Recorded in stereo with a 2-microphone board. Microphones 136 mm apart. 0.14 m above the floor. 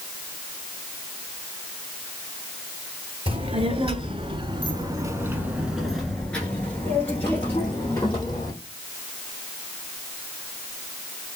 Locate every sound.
3.3 s a child speaking: 45° right (ahead or behind), 1.4 m; by 8.5 s 25° left (ahead or behind), 2.5 m